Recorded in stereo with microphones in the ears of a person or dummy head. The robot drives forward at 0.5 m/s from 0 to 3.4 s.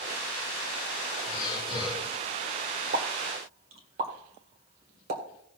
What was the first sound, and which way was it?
Breathing, 30° left (ahead or behind).